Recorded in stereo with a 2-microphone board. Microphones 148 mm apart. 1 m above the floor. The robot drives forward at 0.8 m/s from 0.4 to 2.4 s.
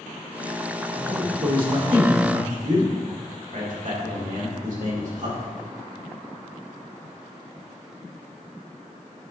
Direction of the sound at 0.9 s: 80° right.